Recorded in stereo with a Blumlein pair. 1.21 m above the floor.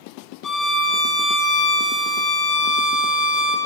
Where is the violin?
20° left, 0.9 m.